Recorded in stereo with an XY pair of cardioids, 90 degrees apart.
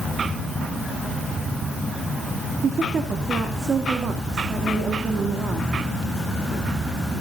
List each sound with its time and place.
2.6 s a woman speaking: 50° right, 3 m